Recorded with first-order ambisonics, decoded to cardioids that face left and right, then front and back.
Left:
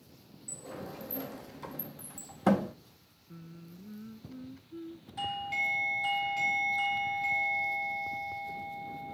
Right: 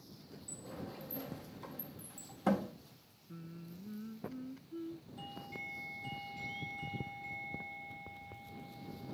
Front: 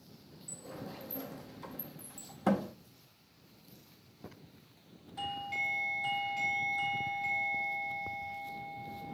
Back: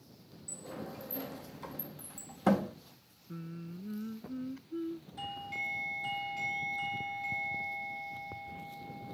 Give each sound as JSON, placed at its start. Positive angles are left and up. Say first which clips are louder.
{"t": 0.5, "sound": "a sliding door", "louder": "left 5 dB, back 2 dB", "azimuth_deg": 110}
{"t": 3.3, "sound": "singing", "louder": "even, back 16 dB", "azimuth_deg": 180}
{"t": 5.2, "sound": "a doorbell", "louder": "left 16 dB, front 4 dB", "azimuth_deg": 75}